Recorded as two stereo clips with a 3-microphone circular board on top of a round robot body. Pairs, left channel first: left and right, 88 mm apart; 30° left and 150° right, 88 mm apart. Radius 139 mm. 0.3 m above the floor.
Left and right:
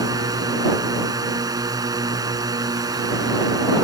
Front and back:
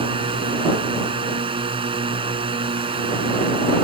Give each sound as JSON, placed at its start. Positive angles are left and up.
{"t": 0.0, "sound": "a drone", "azimuth_deg": -135}